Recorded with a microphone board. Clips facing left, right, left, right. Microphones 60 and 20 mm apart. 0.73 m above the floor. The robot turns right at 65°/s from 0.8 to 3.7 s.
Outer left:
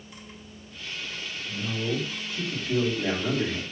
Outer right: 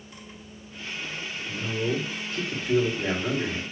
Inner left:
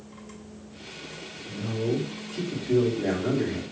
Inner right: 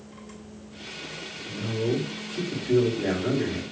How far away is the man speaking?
About 2 m.